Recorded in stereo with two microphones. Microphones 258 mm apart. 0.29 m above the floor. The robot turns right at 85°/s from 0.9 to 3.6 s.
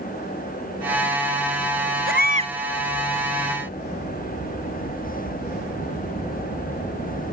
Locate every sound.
2.1 s a baby crying: 55° right; by 2.5 s 15° right